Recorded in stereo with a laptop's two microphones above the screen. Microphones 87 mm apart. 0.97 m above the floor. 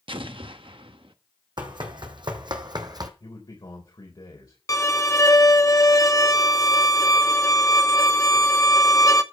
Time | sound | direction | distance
0.1 | an explosion | 80° right | 0.9 m
1.6 | running footsteps | 60° right (ahead or behind) | 2.5 m
3.2 | a man speaking | 55° left (ahead or behind) | 4 m
4.7 | a violin | 35° left (ahead or behind) | 0.9 m